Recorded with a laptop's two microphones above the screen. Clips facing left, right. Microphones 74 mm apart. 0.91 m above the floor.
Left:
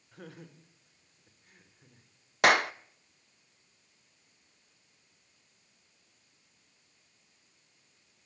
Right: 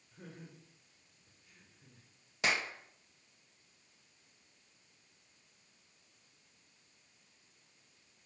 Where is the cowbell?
No cowbell in this recording.